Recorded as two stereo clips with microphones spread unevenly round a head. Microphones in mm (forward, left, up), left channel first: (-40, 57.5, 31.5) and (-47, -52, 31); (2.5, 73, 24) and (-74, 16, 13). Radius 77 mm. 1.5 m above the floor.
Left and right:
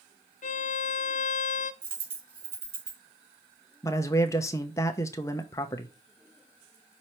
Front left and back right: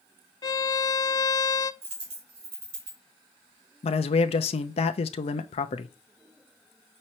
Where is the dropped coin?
130° right, 2.5 m.